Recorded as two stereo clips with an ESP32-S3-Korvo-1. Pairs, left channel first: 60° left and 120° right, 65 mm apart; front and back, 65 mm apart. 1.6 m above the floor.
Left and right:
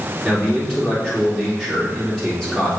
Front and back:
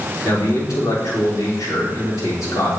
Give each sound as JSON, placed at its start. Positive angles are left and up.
{"t": 0.2, "sound": "a man speaking", "azimuth_deg": -25, "distance_m": 4.0}